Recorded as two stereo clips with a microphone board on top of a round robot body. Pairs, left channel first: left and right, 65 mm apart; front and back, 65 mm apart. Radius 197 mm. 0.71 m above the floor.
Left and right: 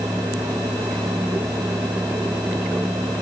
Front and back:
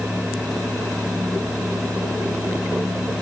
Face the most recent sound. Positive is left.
No sound to turn to.